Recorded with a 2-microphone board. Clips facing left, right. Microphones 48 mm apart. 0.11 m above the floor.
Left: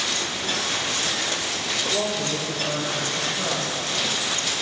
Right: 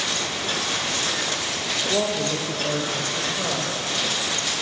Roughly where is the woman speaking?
Right.